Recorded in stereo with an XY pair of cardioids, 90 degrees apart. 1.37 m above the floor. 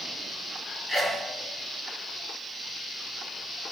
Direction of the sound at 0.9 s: 25° left.